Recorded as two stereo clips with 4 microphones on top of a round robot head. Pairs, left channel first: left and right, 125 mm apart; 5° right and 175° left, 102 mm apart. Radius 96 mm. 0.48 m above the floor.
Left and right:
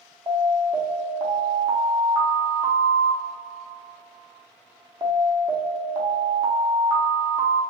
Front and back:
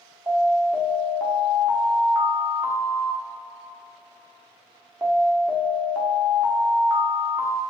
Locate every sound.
0.3 s an alarm: 110° right, 0.9 m